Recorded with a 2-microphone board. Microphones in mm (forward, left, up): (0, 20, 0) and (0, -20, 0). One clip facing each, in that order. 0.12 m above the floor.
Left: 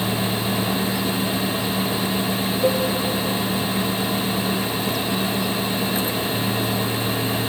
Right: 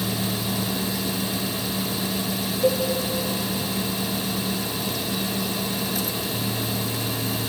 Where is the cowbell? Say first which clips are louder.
Left 1 dB; 5° left (ahead or behind), 3.5 m.